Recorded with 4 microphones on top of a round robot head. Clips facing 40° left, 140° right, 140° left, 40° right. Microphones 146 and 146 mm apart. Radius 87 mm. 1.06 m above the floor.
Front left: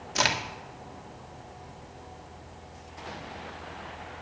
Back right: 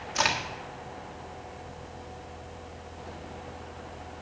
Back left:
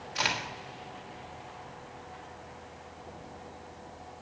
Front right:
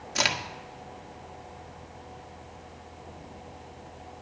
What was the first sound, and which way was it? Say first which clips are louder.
A crack: even, front right 3 dB; 10° right.